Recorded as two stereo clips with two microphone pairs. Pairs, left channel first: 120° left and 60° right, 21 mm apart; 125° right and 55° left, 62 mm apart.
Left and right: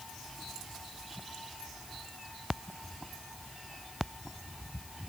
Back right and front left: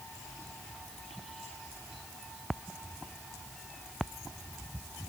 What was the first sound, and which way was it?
Only background noise.